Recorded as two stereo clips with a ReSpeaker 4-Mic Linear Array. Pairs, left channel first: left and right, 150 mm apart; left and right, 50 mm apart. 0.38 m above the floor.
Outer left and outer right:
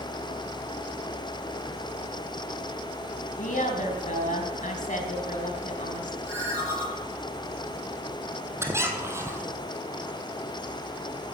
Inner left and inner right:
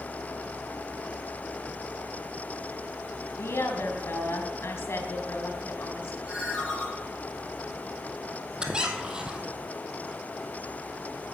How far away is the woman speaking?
About 3.5 m.